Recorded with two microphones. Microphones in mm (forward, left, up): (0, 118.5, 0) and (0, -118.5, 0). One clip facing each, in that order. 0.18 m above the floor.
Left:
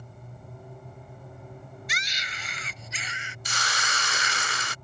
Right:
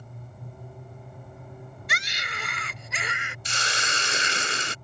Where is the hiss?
30° right (ahead or behind).